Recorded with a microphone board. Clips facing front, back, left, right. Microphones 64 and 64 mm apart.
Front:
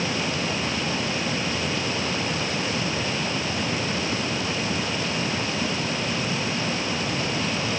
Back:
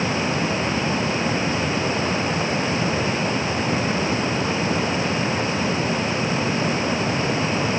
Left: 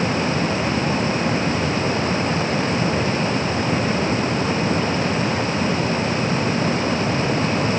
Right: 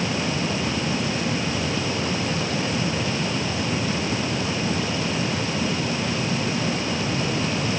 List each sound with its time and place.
Only background noise.